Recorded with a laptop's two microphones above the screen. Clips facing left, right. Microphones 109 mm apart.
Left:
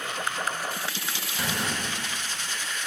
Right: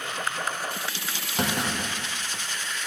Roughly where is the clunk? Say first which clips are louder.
Right 4 dB; right.